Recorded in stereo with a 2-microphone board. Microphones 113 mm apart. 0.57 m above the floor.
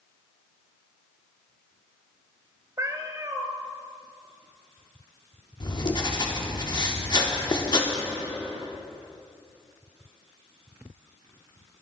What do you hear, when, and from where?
2.8 s a cat meowing: 30° right (ahead or behind), 0.7 m
5.6 s writing: 40° left (ahead or behind), 1.0 m